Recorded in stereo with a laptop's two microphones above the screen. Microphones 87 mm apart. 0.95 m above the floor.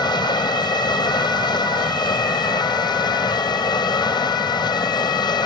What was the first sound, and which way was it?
Running water, 60° left (ahead or behind).